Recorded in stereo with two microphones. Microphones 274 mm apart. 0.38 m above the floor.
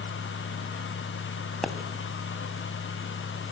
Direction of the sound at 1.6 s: Centre (ahead or behind).